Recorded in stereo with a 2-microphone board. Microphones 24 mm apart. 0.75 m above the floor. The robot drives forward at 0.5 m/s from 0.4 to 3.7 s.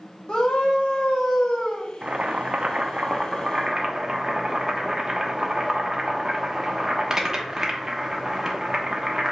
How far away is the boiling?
About 0.5 m.